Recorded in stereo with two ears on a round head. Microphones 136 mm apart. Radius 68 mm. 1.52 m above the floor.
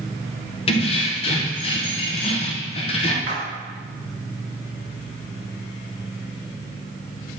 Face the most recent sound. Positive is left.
turn(degrees=-45)  # may be behind; listen again after turning